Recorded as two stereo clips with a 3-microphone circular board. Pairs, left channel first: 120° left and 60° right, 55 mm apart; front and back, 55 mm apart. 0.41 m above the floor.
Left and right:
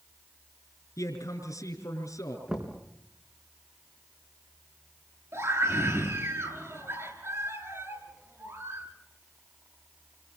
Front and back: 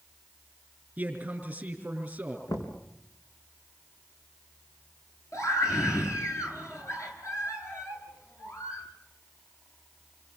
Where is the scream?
30° right, 8.5 m.